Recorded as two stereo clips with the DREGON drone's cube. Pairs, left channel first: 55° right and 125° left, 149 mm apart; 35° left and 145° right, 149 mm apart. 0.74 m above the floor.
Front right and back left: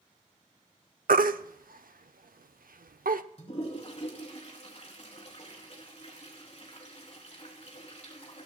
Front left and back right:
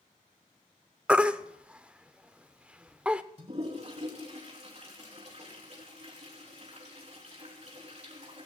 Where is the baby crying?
135° left, 0.7 m.